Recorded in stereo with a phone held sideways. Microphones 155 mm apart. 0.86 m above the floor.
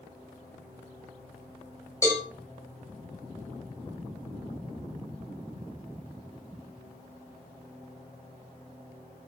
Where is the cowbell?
20° left (ahead or behind), 2 m.